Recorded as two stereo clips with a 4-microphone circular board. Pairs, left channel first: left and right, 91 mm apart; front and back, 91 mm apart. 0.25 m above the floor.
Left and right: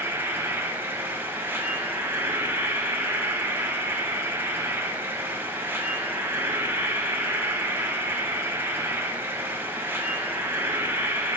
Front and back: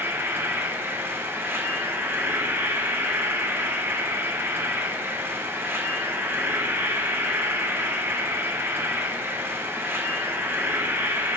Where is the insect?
135° right, 1.1 m.